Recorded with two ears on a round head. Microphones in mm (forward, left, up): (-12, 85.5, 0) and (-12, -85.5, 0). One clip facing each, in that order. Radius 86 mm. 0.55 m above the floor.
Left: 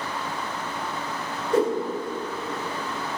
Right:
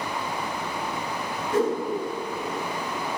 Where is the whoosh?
55° left (ahead or behind), 2 m.